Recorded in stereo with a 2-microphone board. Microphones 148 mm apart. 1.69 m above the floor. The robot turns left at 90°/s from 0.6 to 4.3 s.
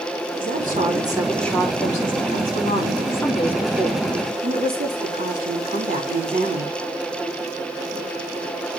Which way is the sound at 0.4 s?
110° right.